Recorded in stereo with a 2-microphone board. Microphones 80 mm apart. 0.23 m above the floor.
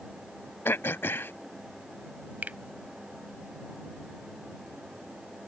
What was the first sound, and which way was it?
Throat clearing, 30° left (ahead or behind).